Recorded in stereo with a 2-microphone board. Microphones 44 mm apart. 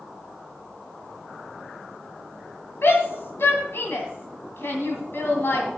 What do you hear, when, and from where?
2.8 s a shout: 60° left (ahead or behind), 2 m